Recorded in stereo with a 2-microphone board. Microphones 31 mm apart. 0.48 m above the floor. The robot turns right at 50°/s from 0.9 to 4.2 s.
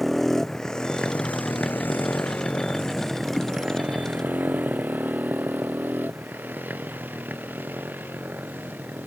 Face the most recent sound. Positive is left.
turn(degrees=-90)